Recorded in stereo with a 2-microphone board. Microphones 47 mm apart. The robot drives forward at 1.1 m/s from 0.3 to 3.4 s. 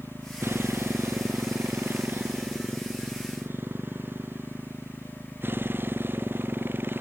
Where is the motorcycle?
65° right (ahead or behind); by 7.0 s 50° right (ahead or behind).